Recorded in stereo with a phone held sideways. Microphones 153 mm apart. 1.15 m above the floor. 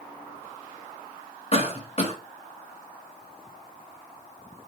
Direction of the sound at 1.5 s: 40° left (ahead or behind).